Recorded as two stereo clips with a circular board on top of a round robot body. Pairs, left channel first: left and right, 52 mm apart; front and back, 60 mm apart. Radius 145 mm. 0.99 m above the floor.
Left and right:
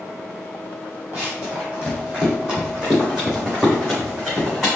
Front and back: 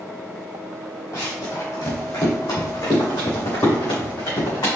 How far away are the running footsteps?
About 1.7 m.